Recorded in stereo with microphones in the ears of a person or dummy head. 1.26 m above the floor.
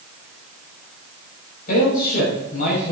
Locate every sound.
1.7 s a man speaking: 45° left (ahead or behind), 6.5 m